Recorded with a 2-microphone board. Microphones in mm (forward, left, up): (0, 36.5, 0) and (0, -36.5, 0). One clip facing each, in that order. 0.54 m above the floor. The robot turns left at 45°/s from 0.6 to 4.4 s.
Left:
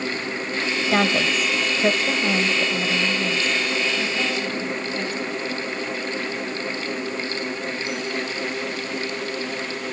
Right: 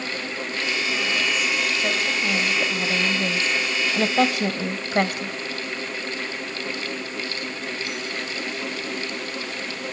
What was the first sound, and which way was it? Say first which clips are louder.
A woman speaking: left 8 dB; 70° left (ahead or behind).